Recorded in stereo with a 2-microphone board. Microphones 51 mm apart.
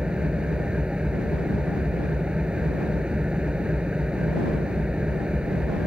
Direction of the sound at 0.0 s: 20° right (ahead or behind).